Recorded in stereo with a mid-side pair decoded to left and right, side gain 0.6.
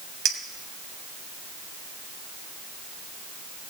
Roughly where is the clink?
Ahead right.